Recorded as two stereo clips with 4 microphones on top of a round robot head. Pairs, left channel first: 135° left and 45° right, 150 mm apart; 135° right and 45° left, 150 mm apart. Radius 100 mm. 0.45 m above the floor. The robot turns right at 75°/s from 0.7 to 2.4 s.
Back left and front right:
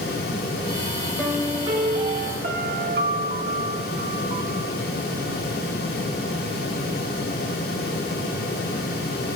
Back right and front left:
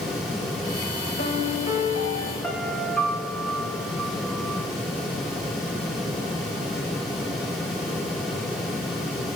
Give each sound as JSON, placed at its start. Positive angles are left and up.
{"t": 1.2, "sound": "a piano", "azimuth_deg": -145, "distance_m": 2.5}